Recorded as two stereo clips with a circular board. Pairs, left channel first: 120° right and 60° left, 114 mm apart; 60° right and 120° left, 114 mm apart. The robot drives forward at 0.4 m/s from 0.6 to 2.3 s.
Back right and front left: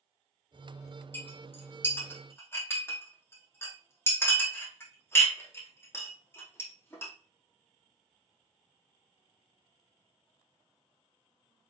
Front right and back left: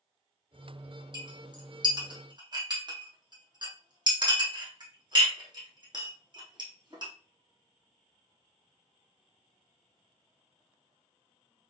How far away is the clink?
About 3.5 m.